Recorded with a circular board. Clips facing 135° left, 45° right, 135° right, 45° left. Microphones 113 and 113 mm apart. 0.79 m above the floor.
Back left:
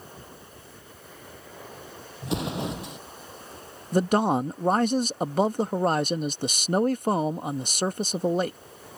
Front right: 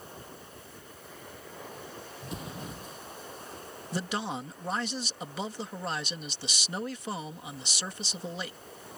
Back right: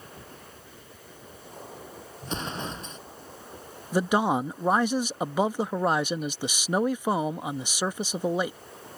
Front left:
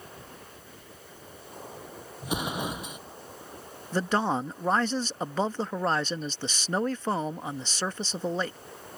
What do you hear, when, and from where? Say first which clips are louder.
2.2 s an explosion: back left 12 dB, front left 2 dB; 125° left
3.9 s a man speaking: back left 12 dB, back right 3 dB; 150° left